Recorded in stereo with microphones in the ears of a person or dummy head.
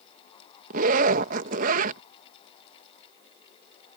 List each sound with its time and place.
0.7 s a zipper: 50° right (ahead or behind)